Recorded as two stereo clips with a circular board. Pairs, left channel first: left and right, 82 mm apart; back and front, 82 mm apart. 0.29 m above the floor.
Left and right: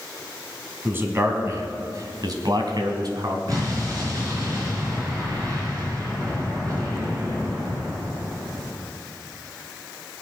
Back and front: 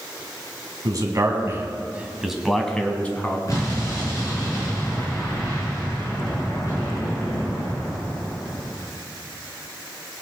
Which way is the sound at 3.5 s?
130° right.